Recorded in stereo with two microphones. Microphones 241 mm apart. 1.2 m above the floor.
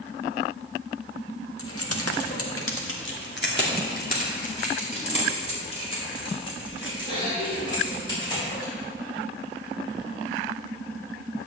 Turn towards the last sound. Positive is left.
turn(degrees=15)  # may be behind; listen again after turning